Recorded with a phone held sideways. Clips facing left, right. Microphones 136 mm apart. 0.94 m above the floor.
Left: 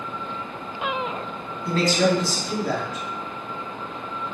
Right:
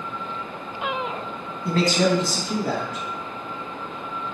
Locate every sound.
1.6 s a man speaking: 55° right (ahead or behind), 1.4 m